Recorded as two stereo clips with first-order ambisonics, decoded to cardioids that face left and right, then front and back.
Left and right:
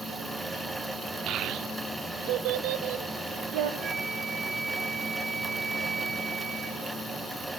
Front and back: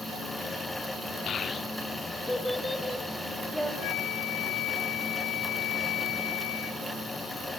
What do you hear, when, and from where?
1.3 s a child speaking: 50° right, 0.7 m; by 3.7 s 85° right, 2 m
3.8 s a flute: 25° right, 0.6 m